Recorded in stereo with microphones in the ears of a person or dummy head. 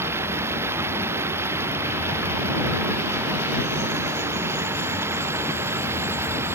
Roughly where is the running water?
Centre.